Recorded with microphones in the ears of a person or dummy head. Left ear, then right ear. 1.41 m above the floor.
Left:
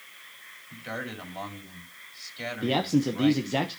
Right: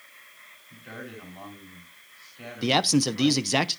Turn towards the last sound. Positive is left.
turn(degrees=-40)  # may be behind; listen again after turning